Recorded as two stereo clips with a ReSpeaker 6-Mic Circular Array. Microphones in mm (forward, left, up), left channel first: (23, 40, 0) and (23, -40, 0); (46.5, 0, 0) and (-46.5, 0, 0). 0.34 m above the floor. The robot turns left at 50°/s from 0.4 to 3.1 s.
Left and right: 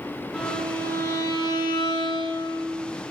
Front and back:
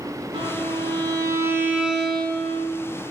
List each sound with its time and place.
0.3 s a violin: 175° left, 4 m; by 2.8 s 55° left, 4 m